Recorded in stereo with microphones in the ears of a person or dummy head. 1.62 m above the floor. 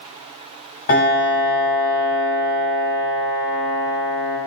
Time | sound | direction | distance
0.9 | a piano | 45° left (ahead or behind) | 1.5 m